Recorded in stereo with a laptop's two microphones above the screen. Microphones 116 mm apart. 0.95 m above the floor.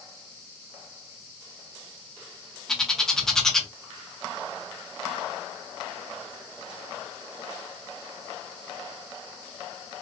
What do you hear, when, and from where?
2.7 s a bird: 5° left (ahead or behind), 0.5 m